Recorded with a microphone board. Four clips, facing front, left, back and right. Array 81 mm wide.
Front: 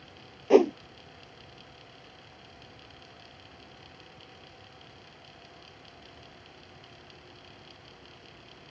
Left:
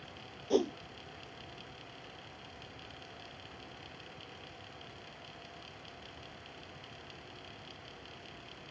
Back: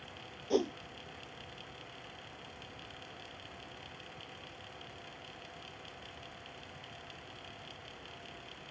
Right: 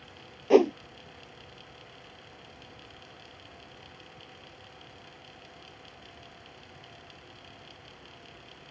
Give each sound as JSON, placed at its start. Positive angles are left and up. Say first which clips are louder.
{"t": 0.5, "sound": "a whoosh", "louder": "right 10 dB, front 12 dB", "azimuth_deg": -40}